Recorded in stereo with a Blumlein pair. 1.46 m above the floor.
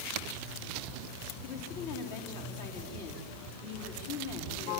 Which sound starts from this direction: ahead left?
A woman speaking, at 1.4 s.